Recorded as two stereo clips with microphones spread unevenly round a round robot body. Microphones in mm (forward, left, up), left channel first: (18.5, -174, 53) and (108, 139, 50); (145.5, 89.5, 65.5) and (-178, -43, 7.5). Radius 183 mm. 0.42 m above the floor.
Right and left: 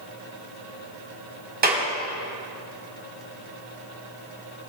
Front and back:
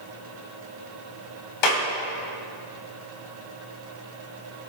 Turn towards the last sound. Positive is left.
turn(degrees=10)